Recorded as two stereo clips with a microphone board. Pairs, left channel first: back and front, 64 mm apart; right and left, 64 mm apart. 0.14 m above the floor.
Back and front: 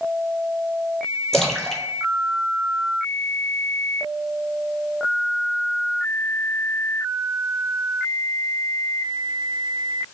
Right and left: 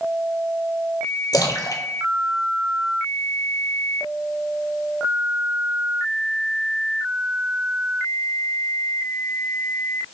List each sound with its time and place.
1.3 s a splash: 95° right, 0.7 m